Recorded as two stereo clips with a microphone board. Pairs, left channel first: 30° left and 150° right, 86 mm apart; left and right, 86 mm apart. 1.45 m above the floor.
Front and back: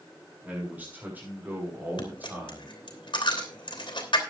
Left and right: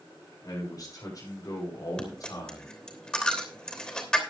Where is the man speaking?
140° left, 7 m.